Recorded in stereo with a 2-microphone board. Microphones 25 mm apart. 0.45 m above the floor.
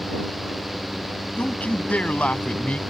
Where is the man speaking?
75° left (ahead or behind).